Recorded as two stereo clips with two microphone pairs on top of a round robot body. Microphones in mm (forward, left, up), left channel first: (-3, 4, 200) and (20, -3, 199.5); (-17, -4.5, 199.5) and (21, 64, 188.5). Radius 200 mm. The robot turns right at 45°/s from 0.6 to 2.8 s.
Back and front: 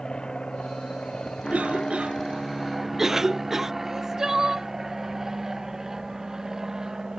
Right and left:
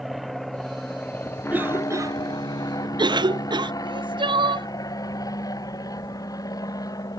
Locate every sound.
0.0 s an aircraft: 140° left; by 7.2 s 80° right
1.5 s a cough: 5° right; by 3.7 s 55° left
3.8 s crying: 50° left